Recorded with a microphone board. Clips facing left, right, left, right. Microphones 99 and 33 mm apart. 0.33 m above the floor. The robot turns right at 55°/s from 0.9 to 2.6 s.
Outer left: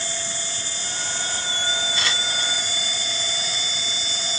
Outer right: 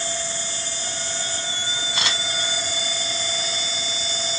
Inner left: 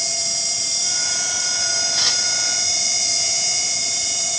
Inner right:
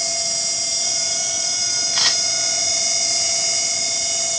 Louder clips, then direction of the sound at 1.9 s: Even, inner right 4 dB; 65° right (ahead or behind).